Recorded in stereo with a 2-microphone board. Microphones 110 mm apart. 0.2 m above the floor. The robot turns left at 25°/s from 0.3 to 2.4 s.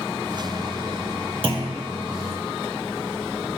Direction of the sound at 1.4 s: 55° right (ahead or behind).